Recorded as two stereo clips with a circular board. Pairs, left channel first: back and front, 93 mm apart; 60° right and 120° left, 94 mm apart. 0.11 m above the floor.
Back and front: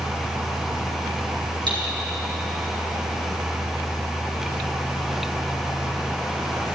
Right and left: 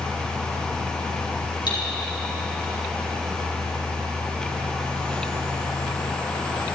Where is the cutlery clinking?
25° right, 3 m.